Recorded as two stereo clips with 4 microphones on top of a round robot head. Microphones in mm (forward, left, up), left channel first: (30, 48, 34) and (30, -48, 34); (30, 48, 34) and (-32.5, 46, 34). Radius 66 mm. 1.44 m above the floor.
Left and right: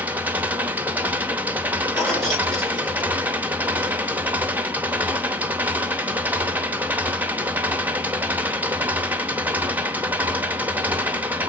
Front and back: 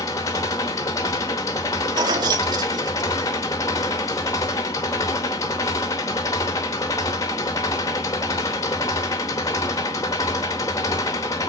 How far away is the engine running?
About 0.9 m.